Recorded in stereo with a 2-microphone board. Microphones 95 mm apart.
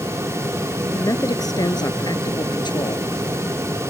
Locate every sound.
0.9 s a man speaking: 35° left (ahead or behind); by 3.1 s 55° left (ahead or behind)